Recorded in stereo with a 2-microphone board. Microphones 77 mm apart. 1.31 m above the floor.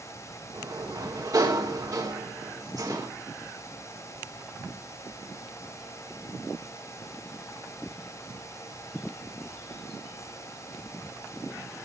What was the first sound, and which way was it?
A sliding door, 50° right (ahead or behind).